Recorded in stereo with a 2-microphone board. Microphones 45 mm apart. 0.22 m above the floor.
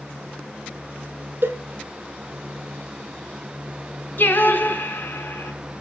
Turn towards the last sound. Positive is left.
turn(degrees=50)  # may be behind; listen again after turning